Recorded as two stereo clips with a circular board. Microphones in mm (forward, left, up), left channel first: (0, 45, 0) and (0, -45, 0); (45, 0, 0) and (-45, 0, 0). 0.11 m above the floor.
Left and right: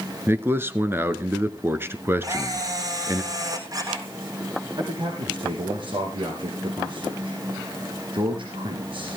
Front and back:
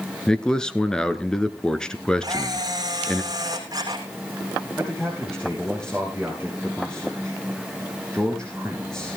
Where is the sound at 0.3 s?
70° right, 1.1 m.